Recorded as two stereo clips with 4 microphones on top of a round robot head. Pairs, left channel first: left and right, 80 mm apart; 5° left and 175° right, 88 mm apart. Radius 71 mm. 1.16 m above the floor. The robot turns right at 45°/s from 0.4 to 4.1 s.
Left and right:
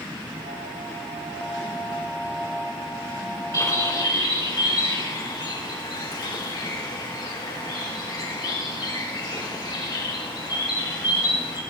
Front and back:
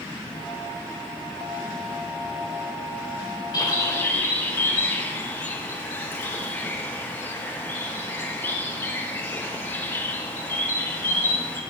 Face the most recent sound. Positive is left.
turn(degrees=70)